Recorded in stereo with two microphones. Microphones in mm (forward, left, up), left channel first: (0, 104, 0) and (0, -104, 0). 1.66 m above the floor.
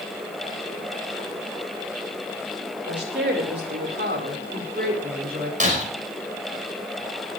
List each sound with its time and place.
2.9 s a woman speaking: 60° right (ahead or behind), 5 m; by 5.5 s 45° right (ahead or behind), 5.5 m
5.6 s breaking glass: 35° right (ahead or behind), 4.5 m